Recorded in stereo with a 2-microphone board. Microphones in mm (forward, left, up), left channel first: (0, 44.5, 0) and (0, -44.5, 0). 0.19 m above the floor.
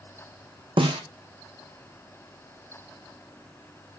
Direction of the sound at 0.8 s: 75° right (ahead or behind).